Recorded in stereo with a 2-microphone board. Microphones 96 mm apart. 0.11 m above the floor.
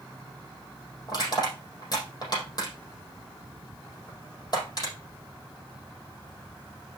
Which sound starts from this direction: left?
Crushing, at 1.1 s.